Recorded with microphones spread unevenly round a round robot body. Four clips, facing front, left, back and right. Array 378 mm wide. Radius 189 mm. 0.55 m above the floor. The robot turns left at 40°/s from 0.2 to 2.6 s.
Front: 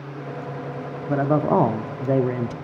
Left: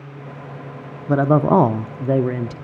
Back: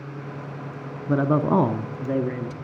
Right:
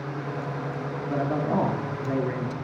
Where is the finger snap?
I don't hear a finger snap.